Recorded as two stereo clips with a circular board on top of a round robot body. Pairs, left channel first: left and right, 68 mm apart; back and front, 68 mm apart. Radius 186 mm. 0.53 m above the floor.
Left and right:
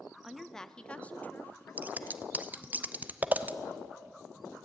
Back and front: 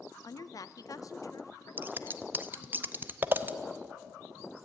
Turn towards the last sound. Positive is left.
turn(degrees=-40)